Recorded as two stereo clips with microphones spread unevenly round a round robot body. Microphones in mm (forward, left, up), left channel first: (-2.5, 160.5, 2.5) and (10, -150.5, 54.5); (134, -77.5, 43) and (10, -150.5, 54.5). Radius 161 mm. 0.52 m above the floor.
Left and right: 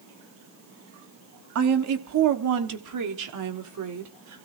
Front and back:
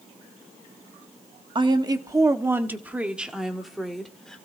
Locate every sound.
1.6 s a woman speaking: 105° right, 1.4 m; by 4.5 s 50° right, 2.5 m